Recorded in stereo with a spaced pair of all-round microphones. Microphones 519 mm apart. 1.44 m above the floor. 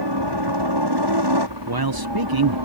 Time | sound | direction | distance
0.0 | a helicopter | 50° right (ahead or behind) | ?
1.7 | a man speaking | 45° right (ahead or behind) | ?